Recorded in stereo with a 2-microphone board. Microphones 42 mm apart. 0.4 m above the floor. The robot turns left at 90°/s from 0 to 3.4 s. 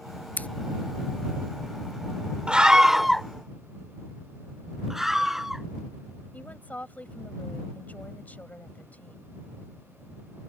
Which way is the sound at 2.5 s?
25° right (ahead or behind).